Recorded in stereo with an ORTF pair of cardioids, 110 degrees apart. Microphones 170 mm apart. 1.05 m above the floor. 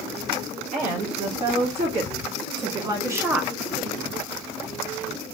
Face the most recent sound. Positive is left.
turn(degrees=-10)